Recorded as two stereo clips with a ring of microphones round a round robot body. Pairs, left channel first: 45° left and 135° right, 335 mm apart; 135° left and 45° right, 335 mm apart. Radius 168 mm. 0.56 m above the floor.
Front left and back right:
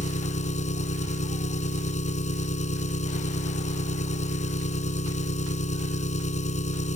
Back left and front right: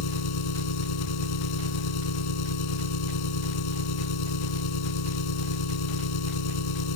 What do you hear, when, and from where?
0.0 s an engine running: 115° left